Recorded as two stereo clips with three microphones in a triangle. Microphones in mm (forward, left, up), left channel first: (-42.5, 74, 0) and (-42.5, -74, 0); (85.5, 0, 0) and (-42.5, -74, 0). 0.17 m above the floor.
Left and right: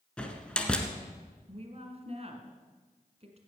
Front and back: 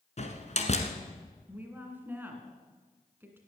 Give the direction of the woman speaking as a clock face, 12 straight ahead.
3 o'clock.